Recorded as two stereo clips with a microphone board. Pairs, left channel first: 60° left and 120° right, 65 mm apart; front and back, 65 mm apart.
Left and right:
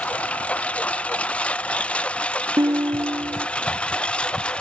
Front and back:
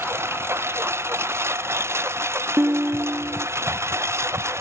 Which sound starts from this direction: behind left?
A lawn mower, at 0.0 s.